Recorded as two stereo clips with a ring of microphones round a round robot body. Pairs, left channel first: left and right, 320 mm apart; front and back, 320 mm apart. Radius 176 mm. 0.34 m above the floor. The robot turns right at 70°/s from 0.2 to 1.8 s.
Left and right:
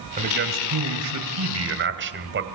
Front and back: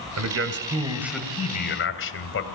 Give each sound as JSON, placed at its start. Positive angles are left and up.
{"t": 0.2, "sound": "a man speaking", "azimuth_deg": -155, "distance_m": 2.5}